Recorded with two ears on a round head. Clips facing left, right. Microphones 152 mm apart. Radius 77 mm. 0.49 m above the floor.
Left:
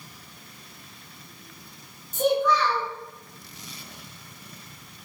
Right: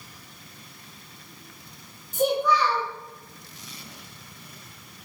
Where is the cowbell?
No cowbell in this recording.